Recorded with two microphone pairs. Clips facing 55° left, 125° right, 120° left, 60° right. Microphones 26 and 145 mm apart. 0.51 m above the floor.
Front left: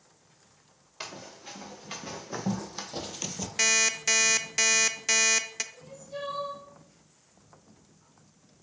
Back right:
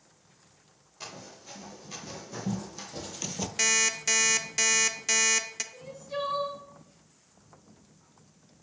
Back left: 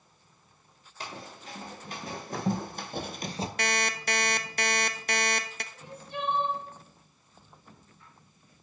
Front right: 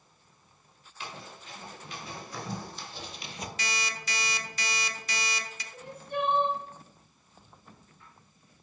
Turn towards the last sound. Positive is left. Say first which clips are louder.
# back right 5 dB, front right 7 dB
turn(degrees=-95)